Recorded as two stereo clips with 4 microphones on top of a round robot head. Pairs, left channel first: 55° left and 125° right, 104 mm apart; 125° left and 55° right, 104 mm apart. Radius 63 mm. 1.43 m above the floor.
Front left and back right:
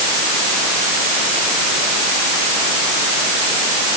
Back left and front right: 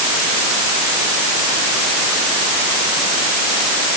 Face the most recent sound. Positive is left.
No sound to turn to.